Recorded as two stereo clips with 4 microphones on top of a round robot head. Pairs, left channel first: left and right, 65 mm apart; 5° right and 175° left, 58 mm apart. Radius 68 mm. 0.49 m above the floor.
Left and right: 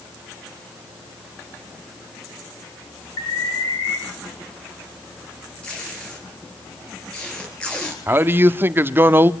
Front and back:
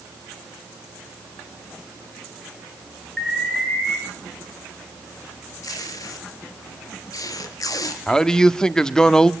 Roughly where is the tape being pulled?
Ahead.